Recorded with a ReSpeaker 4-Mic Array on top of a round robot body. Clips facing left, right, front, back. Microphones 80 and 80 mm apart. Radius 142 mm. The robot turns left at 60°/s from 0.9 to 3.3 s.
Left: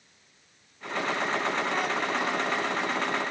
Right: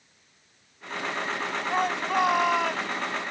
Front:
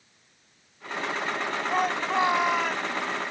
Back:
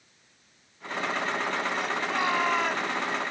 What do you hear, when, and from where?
1.7 s a shout: 35° right; by 2.9 s 105° right